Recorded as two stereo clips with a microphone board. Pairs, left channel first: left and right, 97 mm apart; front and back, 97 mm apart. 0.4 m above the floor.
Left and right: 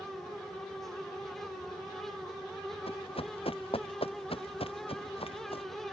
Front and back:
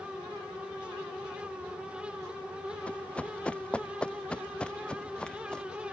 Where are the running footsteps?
75° left; by 5.7 s 80° left.